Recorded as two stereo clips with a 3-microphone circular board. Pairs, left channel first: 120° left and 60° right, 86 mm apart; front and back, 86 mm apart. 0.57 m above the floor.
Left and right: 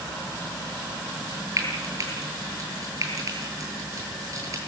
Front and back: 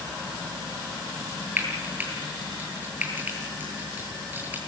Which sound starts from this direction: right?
Frying, at 1.6 s.